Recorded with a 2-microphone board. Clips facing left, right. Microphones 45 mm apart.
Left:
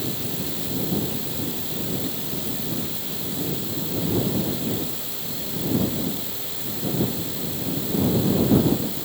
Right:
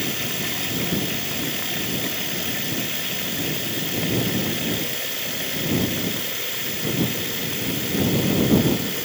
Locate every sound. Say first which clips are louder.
0.0 s running water: right 3 dB; 60° right (ahead or behind)